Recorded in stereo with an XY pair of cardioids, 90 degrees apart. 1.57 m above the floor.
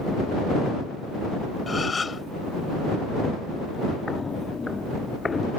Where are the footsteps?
30° left.